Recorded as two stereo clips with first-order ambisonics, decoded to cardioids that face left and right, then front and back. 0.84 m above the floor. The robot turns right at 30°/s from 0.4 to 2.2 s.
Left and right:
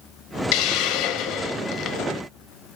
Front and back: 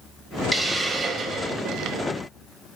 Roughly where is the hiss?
Left.